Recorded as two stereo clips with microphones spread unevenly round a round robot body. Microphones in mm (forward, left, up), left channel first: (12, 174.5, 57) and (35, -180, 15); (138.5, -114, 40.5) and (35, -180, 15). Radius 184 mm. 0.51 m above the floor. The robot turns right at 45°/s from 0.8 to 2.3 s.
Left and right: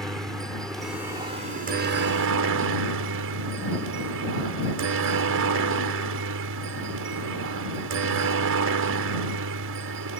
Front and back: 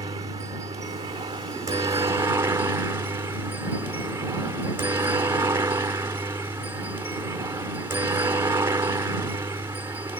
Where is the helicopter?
170° right; by 10.2 s 105° right.